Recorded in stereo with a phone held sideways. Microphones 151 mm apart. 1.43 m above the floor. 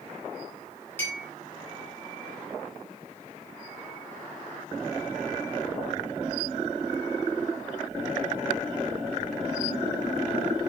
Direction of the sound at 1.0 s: 15° left (ahead or behind).